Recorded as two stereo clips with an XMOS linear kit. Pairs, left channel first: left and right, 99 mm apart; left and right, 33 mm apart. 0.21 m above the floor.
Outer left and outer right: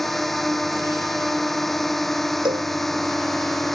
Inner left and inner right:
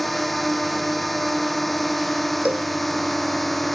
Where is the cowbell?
50° right (ahead or behind).